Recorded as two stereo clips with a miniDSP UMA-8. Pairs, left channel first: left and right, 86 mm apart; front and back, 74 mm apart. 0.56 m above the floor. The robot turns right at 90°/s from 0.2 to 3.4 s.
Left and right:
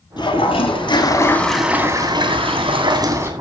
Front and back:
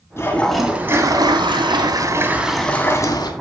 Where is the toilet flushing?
55° left, 2 m; by 3.3 s 25° right, 2 m.